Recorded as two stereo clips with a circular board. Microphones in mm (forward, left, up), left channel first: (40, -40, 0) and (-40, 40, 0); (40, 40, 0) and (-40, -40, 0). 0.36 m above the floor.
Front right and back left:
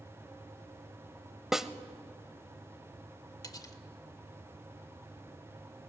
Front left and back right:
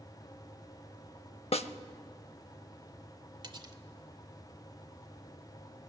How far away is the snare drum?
About 0.6 m.